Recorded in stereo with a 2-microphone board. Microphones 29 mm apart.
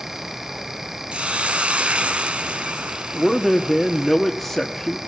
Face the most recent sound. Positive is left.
turn(degrees=5)  # may be behind; listen again after turning